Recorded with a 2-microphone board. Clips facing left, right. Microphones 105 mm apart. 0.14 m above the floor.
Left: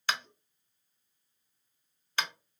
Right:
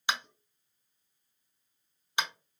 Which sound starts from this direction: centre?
Tapping, at 0.1 s.